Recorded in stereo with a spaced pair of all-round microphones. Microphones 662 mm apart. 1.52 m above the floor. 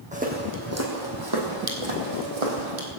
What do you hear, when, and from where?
0.1 s footsteps: 10° right (ahead or behind), 3.5 m; by 2.9 s 60° right (ahead or behind), 3 m